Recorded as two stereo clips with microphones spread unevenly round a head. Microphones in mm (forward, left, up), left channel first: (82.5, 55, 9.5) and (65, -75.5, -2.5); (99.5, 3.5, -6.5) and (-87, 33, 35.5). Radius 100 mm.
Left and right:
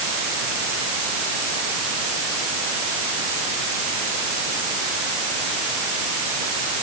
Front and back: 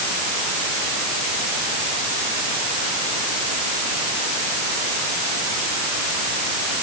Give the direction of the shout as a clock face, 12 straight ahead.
I don't hear a shout.